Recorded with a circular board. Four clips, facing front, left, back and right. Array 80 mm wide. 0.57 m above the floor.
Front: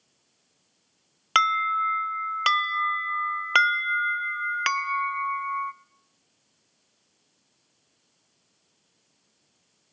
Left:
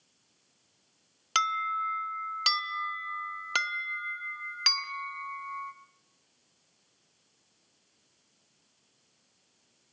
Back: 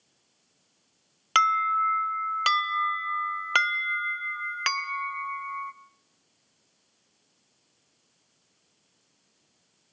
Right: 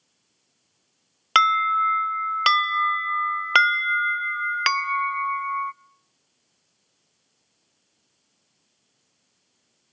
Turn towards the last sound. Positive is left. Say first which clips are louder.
# right 10 dB, even
turn(degrees=-80)